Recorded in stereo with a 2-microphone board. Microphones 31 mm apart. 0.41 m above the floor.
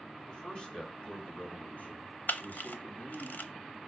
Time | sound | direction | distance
0.3 | a man speaking | 25° left (ahead or behind) | 2.5 m
2.3 | a camera shutter | 70° left (ahead or behind) | 0.7 m